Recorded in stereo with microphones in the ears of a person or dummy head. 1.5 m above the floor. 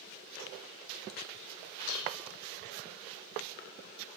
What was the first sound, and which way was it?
Dishes clattering, 75° left (ahead or behind).